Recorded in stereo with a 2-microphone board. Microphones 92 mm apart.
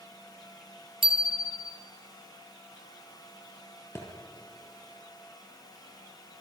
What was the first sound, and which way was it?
A bicycle bell, 65° right (ahead or behind).